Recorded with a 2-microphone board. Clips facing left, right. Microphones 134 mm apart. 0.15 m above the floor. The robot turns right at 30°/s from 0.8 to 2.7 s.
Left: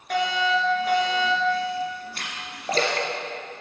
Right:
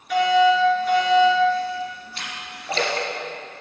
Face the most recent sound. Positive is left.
turn(degrees=40)  # may be behind; listen again after turning